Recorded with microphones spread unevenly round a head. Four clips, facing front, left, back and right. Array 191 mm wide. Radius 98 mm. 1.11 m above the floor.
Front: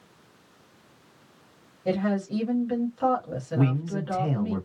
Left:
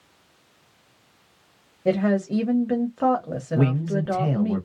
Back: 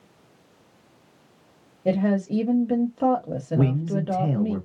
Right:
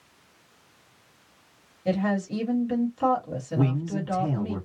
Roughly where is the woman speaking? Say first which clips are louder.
Left 4 dB, back 4 dB; behind left.